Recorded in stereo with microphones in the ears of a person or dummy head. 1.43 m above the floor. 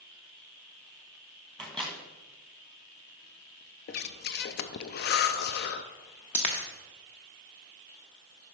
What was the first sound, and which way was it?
A microwave, centre (ahead or behind).